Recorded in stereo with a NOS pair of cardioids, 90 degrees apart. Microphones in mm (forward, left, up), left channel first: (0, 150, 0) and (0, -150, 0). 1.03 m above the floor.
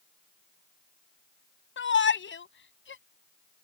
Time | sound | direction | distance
1.8 | a shout | 40° left | ?